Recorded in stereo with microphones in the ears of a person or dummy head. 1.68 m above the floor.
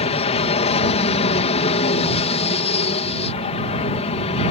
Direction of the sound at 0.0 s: 40° left (ahead or behind).